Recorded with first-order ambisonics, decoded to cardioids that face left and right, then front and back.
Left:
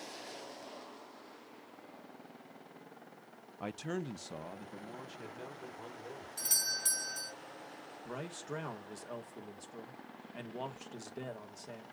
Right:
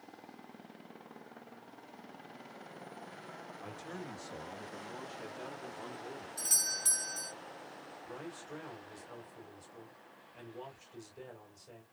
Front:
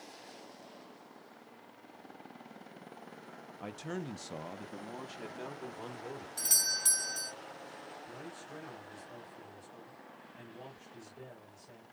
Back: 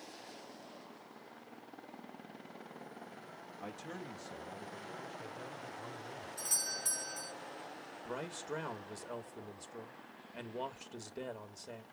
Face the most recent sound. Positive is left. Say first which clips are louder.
# left 4 dB, back 5 dB
turn(degrees=135)